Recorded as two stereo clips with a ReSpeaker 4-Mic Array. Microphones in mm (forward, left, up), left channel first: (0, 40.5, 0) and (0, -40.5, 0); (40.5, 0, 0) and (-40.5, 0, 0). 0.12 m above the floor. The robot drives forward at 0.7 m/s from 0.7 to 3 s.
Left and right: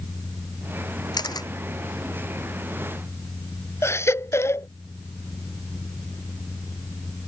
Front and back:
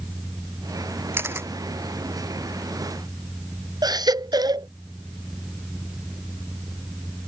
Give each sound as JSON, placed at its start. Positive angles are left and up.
{"t": 1.1, "sound": "a camera shutter", "azimuth_deg": 120}
{"t": 3.8, "sound": "a baby crying", "azimuth_deg": 145}